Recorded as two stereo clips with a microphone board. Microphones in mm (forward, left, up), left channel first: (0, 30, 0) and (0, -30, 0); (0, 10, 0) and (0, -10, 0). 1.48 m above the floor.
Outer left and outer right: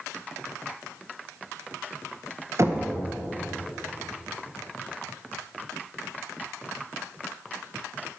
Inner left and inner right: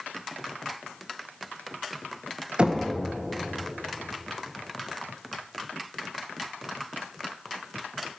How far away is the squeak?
I don't hear a squeak.